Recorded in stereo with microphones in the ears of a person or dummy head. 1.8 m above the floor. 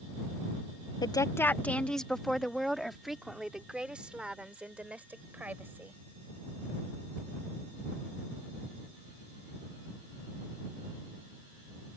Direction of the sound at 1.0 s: 25° left (ahead or behind).